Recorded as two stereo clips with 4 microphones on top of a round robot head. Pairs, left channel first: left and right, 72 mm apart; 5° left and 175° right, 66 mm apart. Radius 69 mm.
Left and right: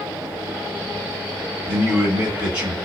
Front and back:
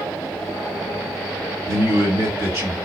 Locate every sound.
1.7 s a man speaking: 150° right, 2.5 m